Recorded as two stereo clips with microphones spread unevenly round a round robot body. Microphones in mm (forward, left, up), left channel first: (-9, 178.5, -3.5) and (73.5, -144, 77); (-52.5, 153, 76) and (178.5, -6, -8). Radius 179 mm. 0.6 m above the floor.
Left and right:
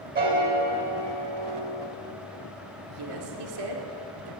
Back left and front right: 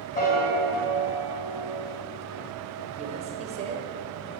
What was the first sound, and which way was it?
A piano, 145° right.